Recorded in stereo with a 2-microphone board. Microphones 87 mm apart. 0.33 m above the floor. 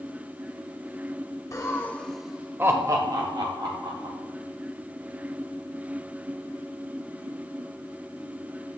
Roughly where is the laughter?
Left.